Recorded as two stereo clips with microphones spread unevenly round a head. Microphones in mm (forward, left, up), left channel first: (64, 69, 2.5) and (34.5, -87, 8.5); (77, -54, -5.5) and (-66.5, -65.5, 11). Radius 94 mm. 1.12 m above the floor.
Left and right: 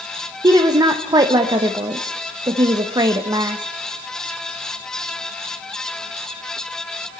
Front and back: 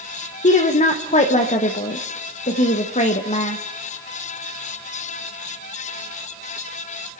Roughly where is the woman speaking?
Ahead right.